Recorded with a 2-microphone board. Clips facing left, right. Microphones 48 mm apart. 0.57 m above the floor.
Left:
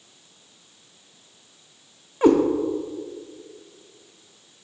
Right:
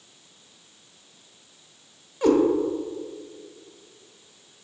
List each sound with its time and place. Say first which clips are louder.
2.2 s a cat meowing: left 3 dB; 25° left (ahead or behind), 0.8 m